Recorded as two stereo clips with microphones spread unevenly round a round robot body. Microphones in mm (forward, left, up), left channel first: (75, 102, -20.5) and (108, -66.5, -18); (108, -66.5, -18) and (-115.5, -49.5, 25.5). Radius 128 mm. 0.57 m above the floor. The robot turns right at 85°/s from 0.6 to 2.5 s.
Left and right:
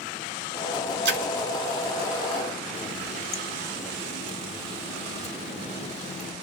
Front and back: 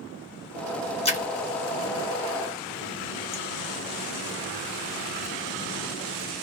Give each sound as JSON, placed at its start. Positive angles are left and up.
{"t": 1.1, "sound": "a splash", "azimuth_deg": -65, "distance_m": 1.9}
{"t": 2.7, "sound": "a running tap", "azimuth_deg": 55, "distance_m": 1.0}